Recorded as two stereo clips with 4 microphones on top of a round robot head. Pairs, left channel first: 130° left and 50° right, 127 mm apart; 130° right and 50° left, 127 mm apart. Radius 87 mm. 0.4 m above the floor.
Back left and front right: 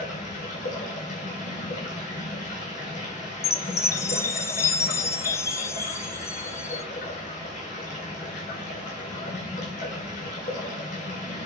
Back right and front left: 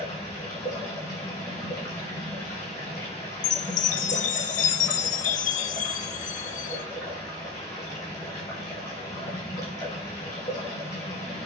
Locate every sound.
0.0 s running water: 160° left, 3 m
3.4 s a chime: 160° right, 0.5 m